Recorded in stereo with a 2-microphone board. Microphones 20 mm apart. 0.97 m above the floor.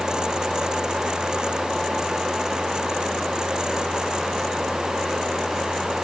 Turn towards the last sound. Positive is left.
No sound to turn to.